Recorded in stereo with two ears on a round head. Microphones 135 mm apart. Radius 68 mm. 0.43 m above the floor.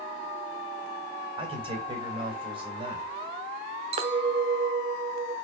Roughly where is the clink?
Right.